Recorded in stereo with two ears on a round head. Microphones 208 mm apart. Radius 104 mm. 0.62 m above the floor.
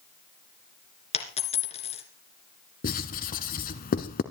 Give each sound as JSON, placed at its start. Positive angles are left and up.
{"t": 1.1, "sound": "a dropped coin", "side_deg": 25, "distance_m": 2.5}
{"t": 2.8, "sound": "writing", "side_deg": 35, "distance_m": 1.3}